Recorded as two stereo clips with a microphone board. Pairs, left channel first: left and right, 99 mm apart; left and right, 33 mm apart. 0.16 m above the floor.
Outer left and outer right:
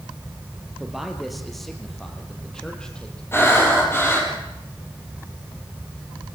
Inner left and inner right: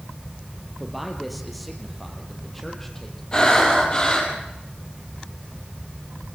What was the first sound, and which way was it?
A man speaking, 5° right (ahead or behind).